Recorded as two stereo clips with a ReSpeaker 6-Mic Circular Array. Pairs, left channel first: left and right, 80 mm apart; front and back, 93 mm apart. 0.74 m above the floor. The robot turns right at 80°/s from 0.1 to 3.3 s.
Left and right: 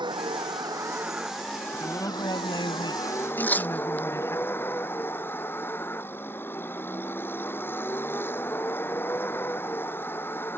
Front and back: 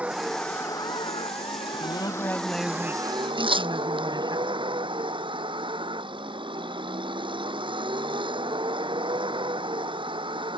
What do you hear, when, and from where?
0.0 s a vehicle: 105° right; by 10.6 s 155° left
1.7 s a woman speaking: 20° left; by 4.4 s 145° left
3.4 s tearing paper: 160° left